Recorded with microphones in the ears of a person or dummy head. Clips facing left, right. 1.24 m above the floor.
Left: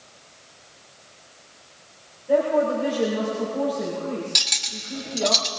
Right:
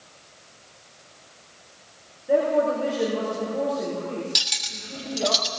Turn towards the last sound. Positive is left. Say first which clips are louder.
# left 2 dB
turn(degrees=-10)  # may be behind; listen again after turning